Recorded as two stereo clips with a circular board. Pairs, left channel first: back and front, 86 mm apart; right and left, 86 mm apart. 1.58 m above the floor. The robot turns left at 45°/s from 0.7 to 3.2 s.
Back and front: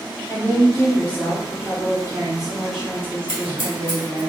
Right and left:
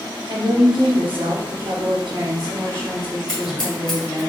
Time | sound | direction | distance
0.3 | a woman speaking | 125° left | 1.4 m
3.3 | scissors | 10° right | 1.7 m